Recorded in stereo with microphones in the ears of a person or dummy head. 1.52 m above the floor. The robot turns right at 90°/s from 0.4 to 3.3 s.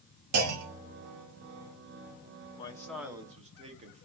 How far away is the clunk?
About 0.8 m.